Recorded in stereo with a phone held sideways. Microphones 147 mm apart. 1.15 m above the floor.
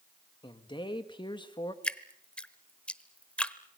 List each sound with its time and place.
0.4 s a man speaking: 35° left (ahead or behind), 2.0 m
1.8 s dripping: 10° left (ahead or behind), 0.9 m